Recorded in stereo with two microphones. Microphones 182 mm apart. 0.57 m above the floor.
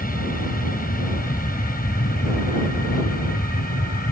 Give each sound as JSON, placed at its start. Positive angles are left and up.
{"t": 0.0, "sound": "an aircraft", "side_deg": 50}